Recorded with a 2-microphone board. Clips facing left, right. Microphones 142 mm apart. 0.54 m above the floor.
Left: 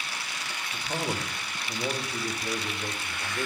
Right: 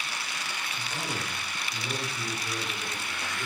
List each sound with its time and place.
0.7 s a man speaking: 70° left (ahead or behind), 2.5 m